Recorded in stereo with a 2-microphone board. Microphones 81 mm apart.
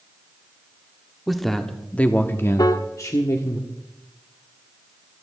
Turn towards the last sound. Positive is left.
turn(degrees=50)  # may be behind; listen again after turning